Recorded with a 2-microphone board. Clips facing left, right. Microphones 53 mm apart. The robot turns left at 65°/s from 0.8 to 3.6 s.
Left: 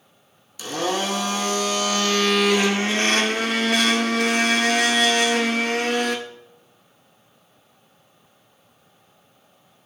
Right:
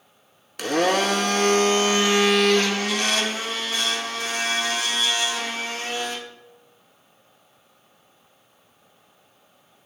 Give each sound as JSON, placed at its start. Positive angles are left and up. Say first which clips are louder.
{"t": 0.6, "sound": "a blender", "louder": "right 4 dB", "azimuth_deg": -75, "distance_m": 0.7}